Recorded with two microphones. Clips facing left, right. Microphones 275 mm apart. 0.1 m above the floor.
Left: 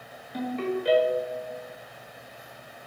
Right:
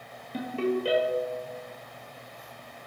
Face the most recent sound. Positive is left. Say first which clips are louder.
# right 1 dB
turn(degrees=-35)  # may be behind; listen again after turning